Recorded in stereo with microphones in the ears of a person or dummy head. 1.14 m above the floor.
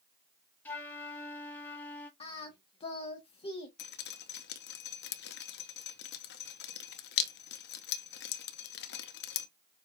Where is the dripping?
45° left (ahead or behind), 0.7 m.